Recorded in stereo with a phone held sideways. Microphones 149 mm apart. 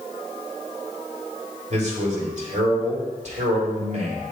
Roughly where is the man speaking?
Right.